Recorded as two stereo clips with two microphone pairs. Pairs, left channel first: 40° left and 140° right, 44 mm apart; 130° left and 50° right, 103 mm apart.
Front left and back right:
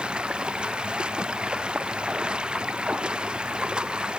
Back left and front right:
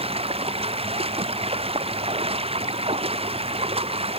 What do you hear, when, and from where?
0.0 s running water: 75° right